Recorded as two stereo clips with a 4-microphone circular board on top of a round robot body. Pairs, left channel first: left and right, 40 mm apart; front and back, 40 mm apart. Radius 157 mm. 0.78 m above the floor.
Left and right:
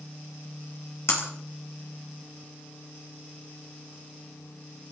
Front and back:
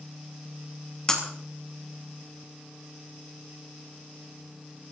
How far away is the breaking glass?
About 2.5 m.